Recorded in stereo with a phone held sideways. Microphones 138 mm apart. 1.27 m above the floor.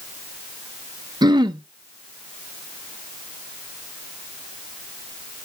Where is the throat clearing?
30° right (ahead or behind), 0.7 m.